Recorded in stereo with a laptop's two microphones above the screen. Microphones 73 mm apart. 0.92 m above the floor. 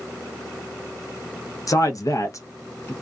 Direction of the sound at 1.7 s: 50° left (ahead or behind).